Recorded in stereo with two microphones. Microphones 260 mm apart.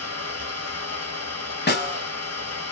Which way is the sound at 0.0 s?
75° right (ahead or behind).